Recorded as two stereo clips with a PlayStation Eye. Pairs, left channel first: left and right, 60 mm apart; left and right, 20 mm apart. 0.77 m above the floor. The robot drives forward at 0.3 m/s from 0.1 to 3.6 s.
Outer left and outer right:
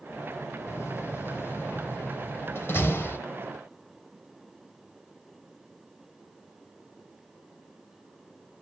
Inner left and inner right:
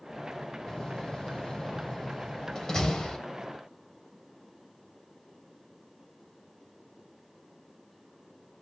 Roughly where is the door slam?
Left.